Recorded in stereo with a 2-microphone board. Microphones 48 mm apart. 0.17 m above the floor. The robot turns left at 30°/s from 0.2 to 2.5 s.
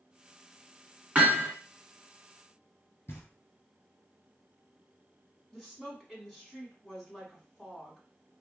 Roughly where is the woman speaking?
Centre.